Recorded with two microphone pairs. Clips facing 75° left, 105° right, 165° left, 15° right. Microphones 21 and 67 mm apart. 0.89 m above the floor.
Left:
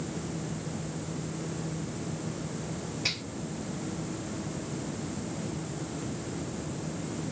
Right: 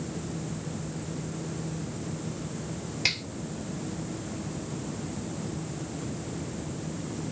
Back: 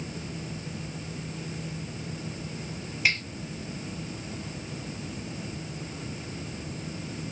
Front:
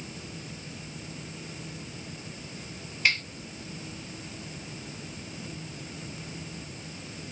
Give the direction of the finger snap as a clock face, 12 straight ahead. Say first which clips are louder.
Right 4 dB, even; 4 o'clock.